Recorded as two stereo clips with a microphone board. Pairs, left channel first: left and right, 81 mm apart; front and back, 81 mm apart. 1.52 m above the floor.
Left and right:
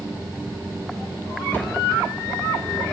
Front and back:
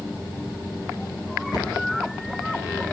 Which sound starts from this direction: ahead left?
A cupboard door, at 1.5 s.